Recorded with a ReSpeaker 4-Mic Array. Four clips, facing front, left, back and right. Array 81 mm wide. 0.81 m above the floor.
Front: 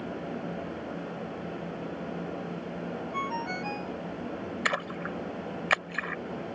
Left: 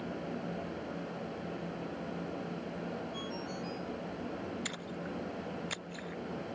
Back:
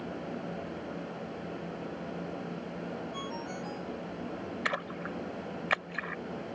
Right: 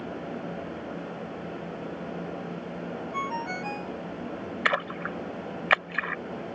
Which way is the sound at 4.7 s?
80° right.